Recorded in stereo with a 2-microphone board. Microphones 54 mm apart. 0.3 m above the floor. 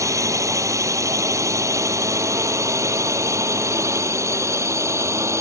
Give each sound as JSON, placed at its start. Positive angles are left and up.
{"t": 0.0, "sound": "a drone", "side_deg": -75}